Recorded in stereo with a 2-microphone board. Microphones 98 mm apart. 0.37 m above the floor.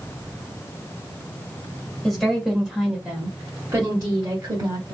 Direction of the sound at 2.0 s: 5° left (ahead or behind).